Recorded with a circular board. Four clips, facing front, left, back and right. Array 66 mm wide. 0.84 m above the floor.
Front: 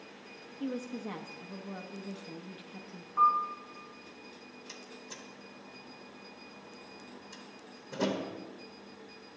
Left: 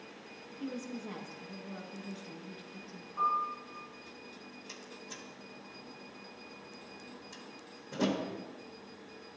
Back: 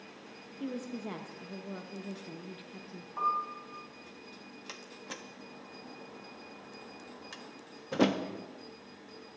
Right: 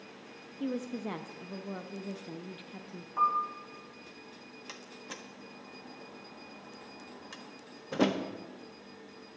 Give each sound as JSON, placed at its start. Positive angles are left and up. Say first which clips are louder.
{"t": 0.6, "sound": "a woman speaking", "louder": "right 5 dB, front 1 dB", "azimuth_deg": -95, "distance_m": 0.5}
{"t": 3.2, "sound": "a piano", "louder": "right 3 dB, front 6 dB", "azimuth_deg": -115, "distance_m": 3.0}
{"t": 4.7, "sound": "a door slam", "louder": "right 4 dB, back 4 dB", "azimuth_deg": -145, "distance_m": 0.9}